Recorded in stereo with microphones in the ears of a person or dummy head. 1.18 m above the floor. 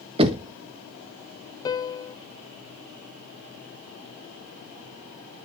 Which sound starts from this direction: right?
Knocking, at 0.2 s.